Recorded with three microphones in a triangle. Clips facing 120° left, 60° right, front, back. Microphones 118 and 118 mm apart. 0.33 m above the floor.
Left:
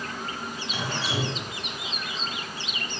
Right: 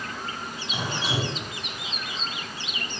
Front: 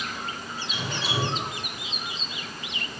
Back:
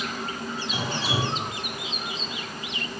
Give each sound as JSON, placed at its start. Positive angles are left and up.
{"t": 0.7, "sound": "dripping", "azimuth_deg": -130, "distance_m": 1.6}